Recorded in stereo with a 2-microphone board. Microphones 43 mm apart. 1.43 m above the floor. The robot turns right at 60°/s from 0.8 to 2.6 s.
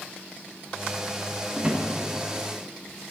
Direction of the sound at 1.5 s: 20° right (ahead or behind).